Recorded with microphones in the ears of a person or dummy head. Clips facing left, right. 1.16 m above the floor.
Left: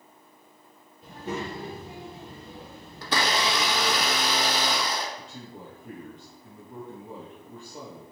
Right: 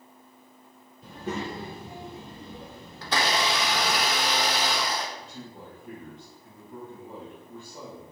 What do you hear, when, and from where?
1.0 s a child speaking: 75° right (ahead or behind), 0.8 m; by 4.0 s 40° right (ahead or behind), 1.7 m
3.0 s a blender: 70° left (ahead or behind), 0.6 m
5.2 s a man speaking: 30° left (ahead or behind), 1.4 m